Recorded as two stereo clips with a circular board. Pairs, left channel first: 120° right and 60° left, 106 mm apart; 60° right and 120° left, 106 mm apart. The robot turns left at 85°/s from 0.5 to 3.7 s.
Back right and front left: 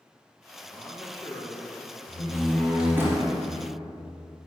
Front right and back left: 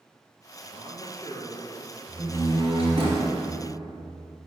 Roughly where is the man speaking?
Ahead right.